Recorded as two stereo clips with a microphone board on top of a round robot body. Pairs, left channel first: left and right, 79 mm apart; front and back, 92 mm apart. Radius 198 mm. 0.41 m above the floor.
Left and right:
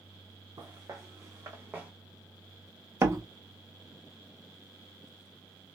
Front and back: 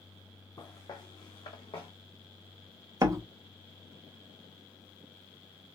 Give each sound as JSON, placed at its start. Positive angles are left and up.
{"t": 0.6, "sound": "footsteps", "azimuth_deg": -50, "distance_m": 2.0}
{"t": 3.0, "sound": "a door slam", "azimuth_deg": -135, "distance_m": 1.0}